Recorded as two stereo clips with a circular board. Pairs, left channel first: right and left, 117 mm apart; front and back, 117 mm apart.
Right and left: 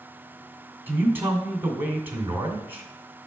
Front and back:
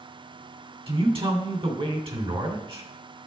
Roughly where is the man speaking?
Behind.